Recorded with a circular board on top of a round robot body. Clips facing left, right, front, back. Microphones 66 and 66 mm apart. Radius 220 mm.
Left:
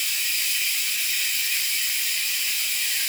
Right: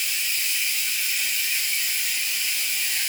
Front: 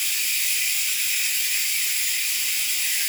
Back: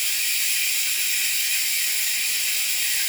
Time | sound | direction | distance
0.0 | running water | 170° right | 1.8 m